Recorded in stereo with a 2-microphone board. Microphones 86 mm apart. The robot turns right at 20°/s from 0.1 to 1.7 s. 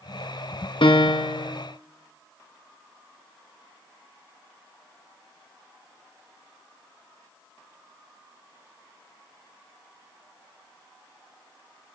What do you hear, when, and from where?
0.8 s a piano: 70° left (ahead or behind), 1.0 m; by 1.5 s 75° left (ahead or behind), 1.0 m